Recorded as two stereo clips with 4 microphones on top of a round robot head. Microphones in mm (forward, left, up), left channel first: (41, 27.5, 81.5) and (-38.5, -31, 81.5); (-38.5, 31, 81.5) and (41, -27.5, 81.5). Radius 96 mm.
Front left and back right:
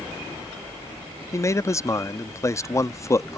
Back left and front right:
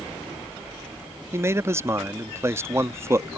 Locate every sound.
1.3 s a man speaking: 5° left